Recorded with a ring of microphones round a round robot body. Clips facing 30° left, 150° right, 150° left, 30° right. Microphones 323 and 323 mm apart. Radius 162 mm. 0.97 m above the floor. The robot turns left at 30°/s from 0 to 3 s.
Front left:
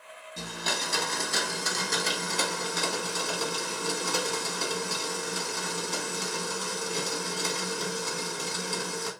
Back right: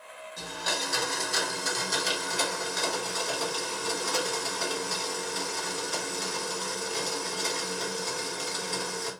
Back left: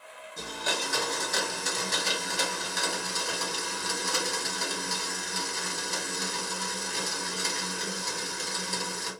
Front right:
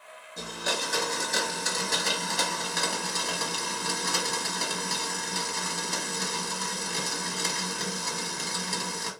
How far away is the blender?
About 1.0 m.